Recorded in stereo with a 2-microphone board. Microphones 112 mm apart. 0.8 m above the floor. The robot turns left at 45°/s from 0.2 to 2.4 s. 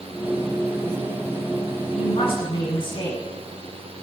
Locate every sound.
1.9 s a woman speaking: 70° left (ahead or behind), 8 m; by 3.2 s 50° left (ahead or behind), 8 m